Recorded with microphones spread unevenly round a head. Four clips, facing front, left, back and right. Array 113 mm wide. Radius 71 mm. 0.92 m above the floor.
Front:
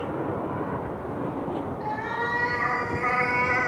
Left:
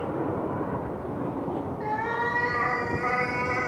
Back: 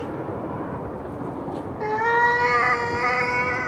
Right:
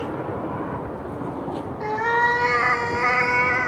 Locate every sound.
1.8 s a cat meowing: 145° right, 1.4 m; by 3.7 s 55° right, 1.4 m